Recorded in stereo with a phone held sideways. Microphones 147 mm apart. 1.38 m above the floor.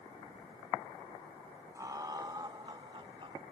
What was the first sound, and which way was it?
Laughter, 25° right (ahead or behind).